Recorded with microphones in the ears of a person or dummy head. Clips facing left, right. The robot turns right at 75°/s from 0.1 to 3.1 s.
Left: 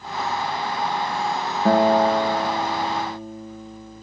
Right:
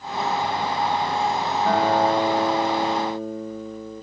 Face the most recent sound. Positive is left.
turn(degrees=-110)